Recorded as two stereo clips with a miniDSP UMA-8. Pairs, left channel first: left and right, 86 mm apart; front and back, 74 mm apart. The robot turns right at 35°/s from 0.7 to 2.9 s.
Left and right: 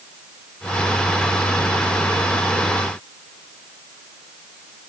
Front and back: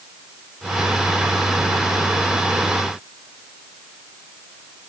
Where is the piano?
No piano in this recording.